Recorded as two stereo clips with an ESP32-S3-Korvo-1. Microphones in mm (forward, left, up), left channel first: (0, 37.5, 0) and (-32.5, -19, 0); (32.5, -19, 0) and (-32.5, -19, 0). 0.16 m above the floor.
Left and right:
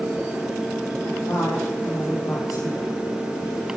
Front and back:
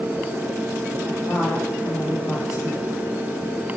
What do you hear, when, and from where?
1.0 s a woman speaking: 30° left, 5.5 m